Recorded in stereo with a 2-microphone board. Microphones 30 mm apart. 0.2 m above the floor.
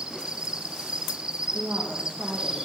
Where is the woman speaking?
80° right, 8 m.